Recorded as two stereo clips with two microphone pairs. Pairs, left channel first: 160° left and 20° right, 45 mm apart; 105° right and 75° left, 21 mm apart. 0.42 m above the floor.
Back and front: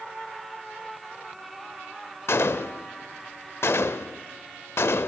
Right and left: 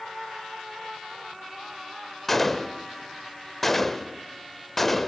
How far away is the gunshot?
About 0.5 m.